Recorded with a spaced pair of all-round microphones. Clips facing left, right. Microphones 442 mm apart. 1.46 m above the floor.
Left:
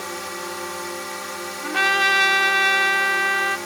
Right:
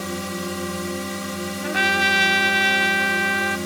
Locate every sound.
0.0 s a drone: 50° right (ahead or behind)
1.6 s a trumpet: 15° left (ahead or behind)